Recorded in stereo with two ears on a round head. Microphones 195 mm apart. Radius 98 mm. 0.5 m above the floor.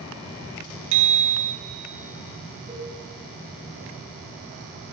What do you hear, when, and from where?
0.9 s a bicycle bell: 65° right (ahead or behind), 2.5 m
2.7 s a cowbell: 20° right (ahead or behind), 3 m